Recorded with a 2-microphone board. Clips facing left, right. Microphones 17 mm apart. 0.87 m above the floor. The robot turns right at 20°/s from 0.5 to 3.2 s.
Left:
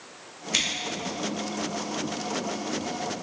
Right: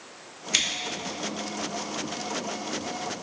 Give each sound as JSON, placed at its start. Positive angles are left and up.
{"t": 0.5, "sound": "scissors", "side_deg": -15, "distance_m": 0.7}